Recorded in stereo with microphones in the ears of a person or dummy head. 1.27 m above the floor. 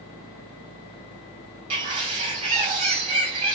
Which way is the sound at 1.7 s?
35° right (ahead or behind).